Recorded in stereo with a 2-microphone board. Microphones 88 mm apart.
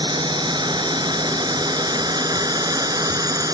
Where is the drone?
60° right (ahead or behind); by 3.5 s 45° right (ahead or behind).